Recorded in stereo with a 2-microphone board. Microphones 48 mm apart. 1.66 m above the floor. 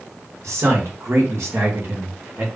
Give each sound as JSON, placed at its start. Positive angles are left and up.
{"t": 0.4, "sound": "a man speaking", "side_deg": -70, "distance_m": 2.5}